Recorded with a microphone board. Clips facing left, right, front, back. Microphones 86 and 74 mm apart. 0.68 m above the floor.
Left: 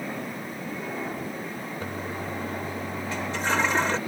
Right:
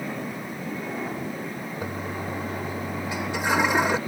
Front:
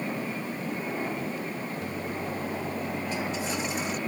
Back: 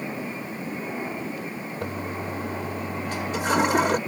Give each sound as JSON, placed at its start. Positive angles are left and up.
{"t": 1.8, "sound": "a toilet flushing", "azimuth_deg": -170}